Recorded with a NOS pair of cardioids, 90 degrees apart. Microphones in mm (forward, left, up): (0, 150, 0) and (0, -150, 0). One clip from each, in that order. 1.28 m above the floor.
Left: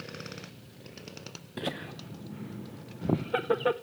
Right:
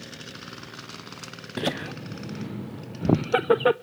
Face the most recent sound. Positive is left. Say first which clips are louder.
# right 7 dB
turn(degrees=-30)